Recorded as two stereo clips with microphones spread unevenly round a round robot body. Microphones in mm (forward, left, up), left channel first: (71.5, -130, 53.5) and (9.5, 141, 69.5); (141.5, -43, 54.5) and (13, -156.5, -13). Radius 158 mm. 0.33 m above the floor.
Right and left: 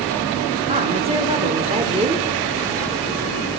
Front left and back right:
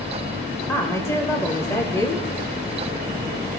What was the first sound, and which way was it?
A woman speaking, 145° left.